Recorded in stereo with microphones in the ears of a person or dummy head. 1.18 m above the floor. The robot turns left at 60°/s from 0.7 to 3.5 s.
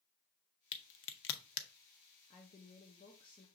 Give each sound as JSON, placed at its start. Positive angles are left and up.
{"t": 0.7, "sound": "a crack", "side_deg": 55, "distance_m": 0.5}
{"t": 2.3, "sound": "a woman speaking", "azimuth_deg": 115, "distance_m": 0.7}